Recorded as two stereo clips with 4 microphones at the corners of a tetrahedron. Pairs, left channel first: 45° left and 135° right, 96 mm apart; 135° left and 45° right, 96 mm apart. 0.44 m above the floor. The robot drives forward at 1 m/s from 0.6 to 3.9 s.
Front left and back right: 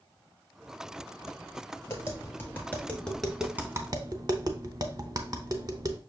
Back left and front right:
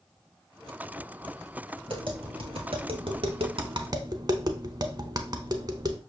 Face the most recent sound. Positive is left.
turn(degrees=-90)